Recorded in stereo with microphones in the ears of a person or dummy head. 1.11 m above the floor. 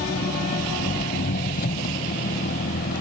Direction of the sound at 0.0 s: 50° left (ahead or behind).